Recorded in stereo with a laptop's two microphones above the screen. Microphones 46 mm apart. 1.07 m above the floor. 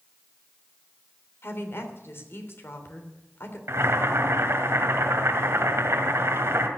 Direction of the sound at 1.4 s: 60° left (ahead or behind).